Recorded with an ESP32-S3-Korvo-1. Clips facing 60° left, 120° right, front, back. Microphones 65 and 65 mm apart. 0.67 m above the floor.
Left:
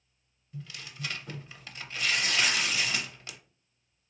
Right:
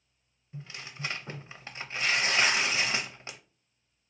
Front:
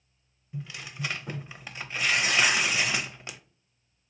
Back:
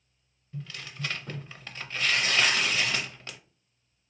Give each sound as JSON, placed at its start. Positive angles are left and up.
{"t": 0.5, "sound": "tearing paper", "azimuth_deg": -70, "distance_m": 0.5}